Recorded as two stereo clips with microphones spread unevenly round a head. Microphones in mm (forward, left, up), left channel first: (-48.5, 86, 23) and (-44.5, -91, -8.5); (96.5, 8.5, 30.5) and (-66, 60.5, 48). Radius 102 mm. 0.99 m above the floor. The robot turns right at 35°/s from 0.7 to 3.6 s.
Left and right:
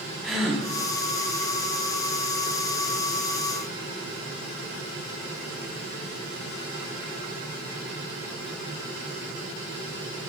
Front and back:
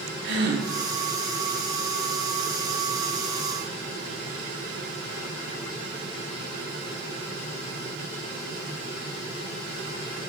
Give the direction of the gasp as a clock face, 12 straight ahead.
6 o'clock.